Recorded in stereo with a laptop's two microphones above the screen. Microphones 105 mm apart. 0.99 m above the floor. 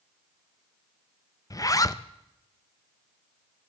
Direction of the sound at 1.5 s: 35° left (ahead or behind).